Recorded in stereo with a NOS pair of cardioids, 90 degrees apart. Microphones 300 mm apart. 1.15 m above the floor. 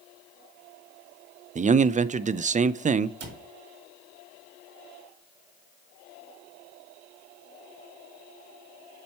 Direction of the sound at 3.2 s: 55° right.